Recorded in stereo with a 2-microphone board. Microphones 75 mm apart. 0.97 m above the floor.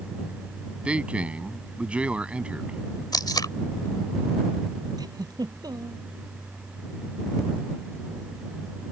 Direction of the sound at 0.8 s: 15° right (ahead or behind).